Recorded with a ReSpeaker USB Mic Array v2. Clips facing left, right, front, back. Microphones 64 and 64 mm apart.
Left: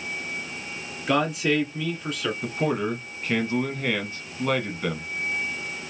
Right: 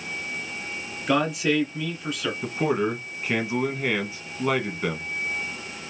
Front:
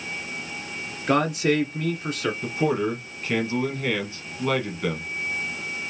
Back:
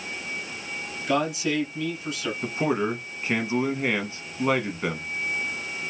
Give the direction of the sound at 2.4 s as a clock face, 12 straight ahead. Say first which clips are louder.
Right 3 dB, even; 5 o'clock.